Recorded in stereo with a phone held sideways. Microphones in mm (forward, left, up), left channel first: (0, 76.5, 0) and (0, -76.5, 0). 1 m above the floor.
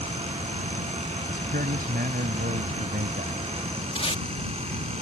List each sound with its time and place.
0.0 s a fan: 45° right (ahead or behind)
1.3 s a man speaking: 80° right
4.0 s tape being pulled: 40° left (ahead or behind)